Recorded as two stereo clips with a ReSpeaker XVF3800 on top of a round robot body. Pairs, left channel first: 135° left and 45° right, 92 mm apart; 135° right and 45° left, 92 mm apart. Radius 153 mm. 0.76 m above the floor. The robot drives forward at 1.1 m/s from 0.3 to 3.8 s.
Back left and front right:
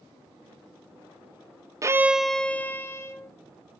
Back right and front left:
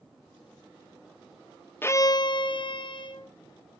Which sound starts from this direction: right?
A violin, at 1.8 s.